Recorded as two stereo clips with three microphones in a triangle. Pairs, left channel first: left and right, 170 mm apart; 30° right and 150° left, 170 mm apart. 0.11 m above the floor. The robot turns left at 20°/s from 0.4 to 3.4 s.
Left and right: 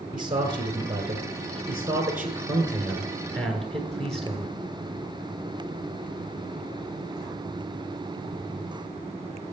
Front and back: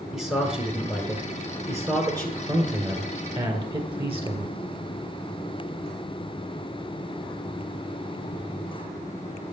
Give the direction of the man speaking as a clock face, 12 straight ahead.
4 o'clock.